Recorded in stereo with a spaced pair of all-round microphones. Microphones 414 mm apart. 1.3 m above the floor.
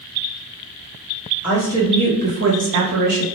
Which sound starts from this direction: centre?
A woman speaking, at 1.4 s.